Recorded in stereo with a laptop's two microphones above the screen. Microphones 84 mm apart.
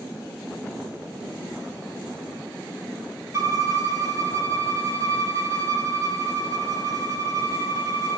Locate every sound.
3.3 s a violin: 40° right (ahead or behind), 0.7 m